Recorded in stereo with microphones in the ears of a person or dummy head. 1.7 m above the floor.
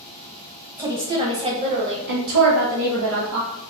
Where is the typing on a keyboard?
I don't hear typing on a keyboard.